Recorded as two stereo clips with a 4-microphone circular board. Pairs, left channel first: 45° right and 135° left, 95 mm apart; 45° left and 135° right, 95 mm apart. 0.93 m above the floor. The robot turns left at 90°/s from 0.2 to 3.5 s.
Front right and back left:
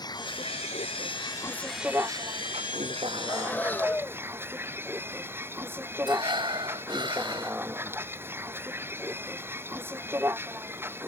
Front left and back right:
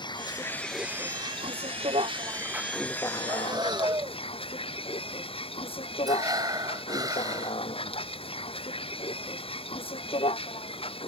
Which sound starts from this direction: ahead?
A vehicle, at 0.0 s.